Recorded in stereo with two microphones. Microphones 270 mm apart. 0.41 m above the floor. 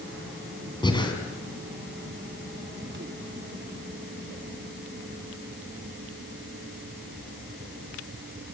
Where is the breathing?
15° left (ahead or behind), 4 m.